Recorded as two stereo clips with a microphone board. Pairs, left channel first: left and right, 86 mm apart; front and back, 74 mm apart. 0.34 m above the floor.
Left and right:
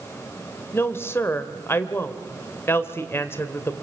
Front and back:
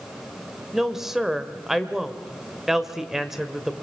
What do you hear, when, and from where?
0.7 s a woman speaking: 100° left, 1.5 m